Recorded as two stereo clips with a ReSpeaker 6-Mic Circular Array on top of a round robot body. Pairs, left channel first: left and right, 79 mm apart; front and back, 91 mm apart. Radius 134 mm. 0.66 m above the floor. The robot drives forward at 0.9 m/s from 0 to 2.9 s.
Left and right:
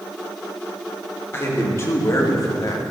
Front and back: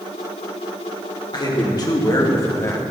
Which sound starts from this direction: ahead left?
A man speaking, at 1.3 s.